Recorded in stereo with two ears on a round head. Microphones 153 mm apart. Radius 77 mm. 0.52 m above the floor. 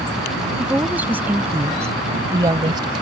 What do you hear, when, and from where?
0.6 s a woman speaking: 5° right (ahead or behind); by 3.0 s 25° right (ahead or behind)